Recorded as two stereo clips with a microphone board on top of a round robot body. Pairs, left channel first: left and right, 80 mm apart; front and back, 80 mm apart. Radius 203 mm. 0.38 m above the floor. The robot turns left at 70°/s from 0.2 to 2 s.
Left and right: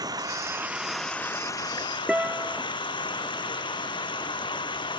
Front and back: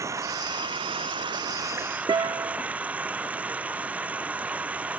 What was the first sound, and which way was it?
Running water, 130° right.